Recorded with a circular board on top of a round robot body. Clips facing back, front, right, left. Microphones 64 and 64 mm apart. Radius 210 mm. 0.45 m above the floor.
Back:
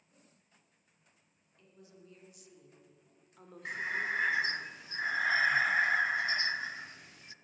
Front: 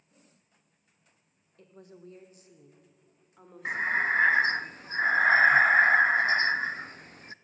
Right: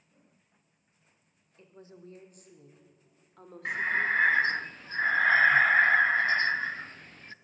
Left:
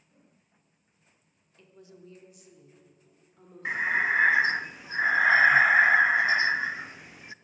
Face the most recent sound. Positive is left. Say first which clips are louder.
# front 8 dB, left 2 dB
turn(degrees=15)